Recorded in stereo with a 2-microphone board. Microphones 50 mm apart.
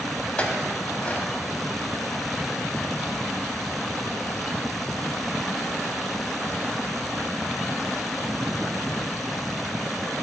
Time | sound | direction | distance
0.4 | a clink | 30° left (ahead or behind) | 0.9 m